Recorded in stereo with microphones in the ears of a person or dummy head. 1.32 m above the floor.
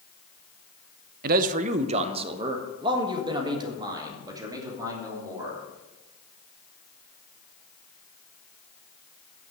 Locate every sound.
1.2 s a man speaking: 60° right (ahead or behind), 0.6 m; by 5.6 s 25° right (ahead or behind), 3 m